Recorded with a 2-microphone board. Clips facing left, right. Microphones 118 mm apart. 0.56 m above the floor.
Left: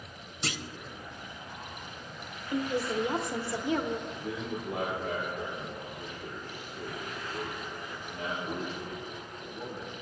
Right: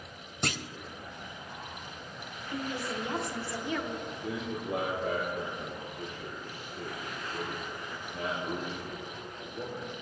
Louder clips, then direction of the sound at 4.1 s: Even; 80° right.